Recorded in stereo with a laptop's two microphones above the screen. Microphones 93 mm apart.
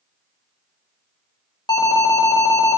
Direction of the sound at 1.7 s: 50° left (ahead or behind).